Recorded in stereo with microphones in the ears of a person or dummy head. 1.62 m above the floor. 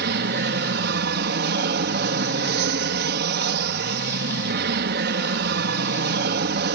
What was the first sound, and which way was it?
An aircraft, 60° right (ahead or behind).